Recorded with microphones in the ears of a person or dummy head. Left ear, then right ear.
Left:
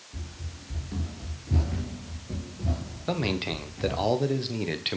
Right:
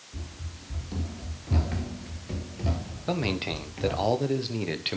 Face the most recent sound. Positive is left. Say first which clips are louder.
# even
turn(degrees=0)  # may be behind; listen again after turning